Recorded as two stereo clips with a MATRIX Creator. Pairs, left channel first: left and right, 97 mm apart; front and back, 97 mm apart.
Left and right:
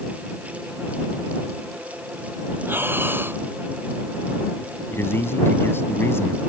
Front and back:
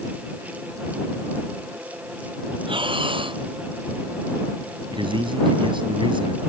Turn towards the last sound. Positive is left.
turn(degrees=155)